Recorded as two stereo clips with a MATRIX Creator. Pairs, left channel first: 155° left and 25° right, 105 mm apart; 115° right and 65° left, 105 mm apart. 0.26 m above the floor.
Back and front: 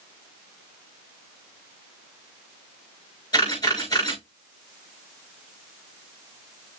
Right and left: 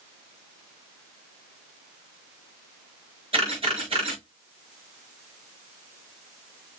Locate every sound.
3.3 s a camera shutter: 105° left, 5.5 m